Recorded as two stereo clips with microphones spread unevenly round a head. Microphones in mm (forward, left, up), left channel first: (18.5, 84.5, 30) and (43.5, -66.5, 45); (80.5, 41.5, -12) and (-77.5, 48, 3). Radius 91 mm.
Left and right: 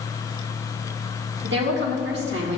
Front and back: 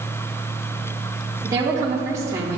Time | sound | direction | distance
1.4 | a woman speaking | 110° right | 1.8 m